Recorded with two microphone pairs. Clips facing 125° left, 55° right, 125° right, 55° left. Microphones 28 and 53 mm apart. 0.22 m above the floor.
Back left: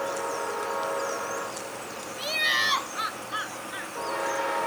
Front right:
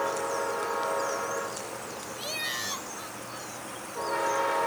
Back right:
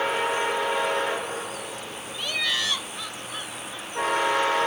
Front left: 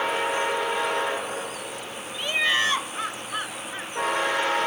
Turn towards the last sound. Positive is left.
turn(degrees=105)